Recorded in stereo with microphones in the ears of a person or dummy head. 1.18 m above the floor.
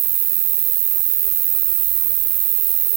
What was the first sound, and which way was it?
An insect, 65° right (ahead or behind).